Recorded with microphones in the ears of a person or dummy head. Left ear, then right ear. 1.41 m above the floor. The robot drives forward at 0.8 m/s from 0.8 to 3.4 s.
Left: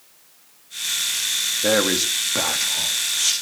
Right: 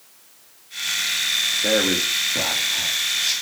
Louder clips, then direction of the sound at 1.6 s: Even; 85° left.